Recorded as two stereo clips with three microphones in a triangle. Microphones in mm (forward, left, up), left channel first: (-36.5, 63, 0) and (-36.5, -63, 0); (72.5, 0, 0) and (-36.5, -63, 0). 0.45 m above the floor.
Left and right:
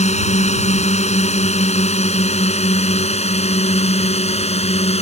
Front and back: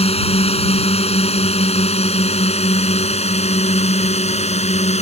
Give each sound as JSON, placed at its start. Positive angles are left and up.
{"t": 0.0, "sound": "a drone", "azimuth_deg": 65}